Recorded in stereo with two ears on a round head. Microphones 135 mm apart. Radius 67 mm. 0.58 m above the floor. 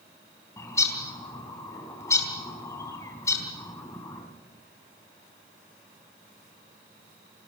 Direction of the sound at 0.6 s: 20° left (ahead or behind).